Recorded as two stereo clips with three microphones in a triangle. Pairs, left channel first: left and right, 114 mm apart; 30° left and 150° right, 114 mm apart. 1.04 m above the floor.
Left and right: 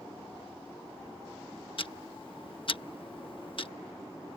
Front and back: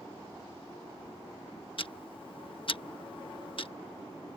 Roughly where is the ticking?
Ahead left.